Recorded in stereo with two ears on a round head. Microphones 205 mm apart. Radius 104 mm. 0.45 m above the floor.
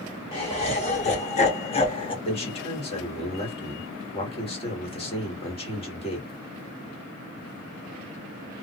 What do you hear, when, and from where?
0.3 s laughter: 25° left (ahead or behind), 1.1 m
2.2 s a man speaking: 25° left (ahead or behind), 1.5 m